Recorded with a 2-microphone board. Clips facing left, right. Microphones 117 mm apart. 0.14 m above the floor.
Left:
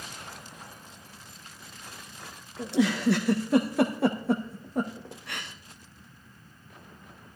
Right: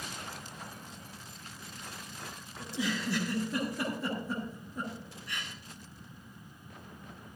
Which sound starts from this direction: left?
A giggle, at 2.6 s.